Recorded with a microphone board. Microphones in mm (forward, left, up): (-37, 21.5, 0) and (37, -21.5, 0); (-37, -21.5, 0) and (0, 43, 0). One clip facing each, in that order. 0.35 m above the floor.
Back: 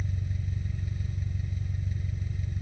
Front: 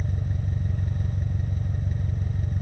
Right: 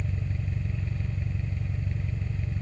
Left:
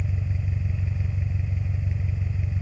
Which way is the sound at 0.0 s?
20° right.